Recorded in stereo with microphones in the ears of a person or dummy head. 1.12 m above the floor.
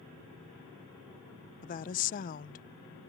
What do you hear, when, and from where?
1.6 s a woman speaking: 35° left (ahead or behind)